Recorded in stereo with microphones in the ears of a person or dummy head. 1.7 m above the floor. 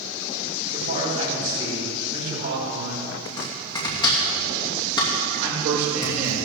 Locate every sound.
0.7 s a man speaking: 65° right (ahead or behind), 4.5 m
3.2 s chopping: 25° left (ahead or behind), 2.5 m
5.4 s a man speaking: 90° right, 5.5 m